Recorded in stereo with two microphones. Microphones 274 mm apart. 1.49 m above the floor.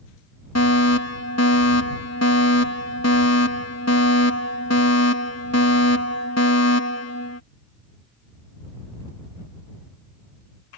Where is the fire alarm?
65° left (ahead or behind).